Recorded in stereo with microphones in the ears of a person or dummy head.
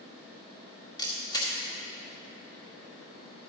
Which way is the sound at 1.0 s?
20° left (ahead or behind).